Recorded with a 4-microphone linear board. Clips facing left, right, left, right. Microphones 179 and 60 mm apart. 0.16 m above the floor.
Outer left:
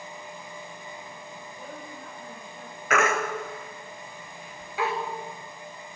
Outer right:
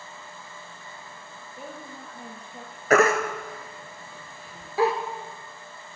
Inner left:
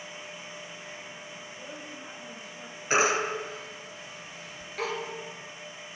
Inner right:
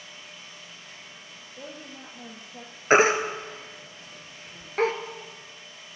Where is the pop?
No pop in this recording.